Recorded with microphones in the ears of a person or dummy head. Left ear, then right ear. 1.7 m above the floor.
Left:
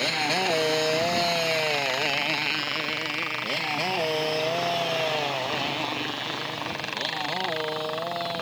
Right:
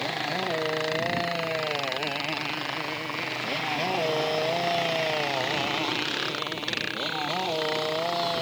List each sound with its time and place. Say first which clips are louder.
0.0 s a motorcycle: left 4 dB; 55° left (ahead or behind); by 8.4 s 10° right (ahead or behind)